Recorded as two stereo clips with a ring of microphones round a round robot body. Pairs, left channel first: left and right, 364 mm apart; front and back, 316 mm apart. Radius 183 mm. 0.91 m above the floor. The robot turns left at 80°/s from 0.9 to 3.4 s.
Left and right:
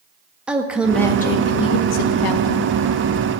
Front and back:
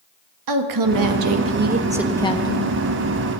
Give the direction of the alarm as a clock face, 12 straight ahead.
No alarm in this recording.